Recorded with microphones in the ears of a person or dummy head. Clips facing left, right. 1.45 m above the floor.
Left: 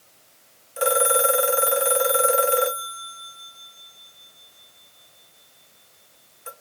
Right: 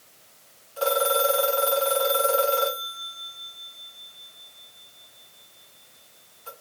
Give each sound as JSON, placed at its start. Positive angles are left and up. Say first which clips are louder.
{"t": 0.8, "sound": "a phone ringing", "louder": "left 2 dB", "side_deg": 30, "distance_m": 0.7}